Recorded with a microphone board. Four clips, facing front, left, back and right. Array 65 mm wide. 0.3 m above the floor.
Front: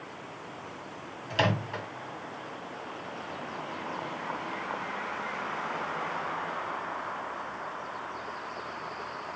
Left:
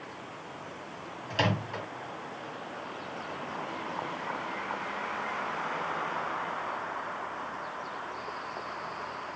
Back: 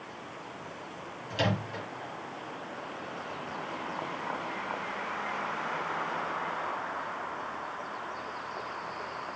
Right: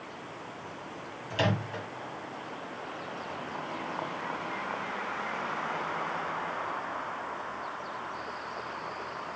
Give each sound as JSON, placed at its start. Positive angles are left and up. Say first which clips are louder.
{"t": 1.3, "sound": "a microwave", "louder": "even, front 3 dB", "azimuth_deg": 20, "distance_m": 1.7}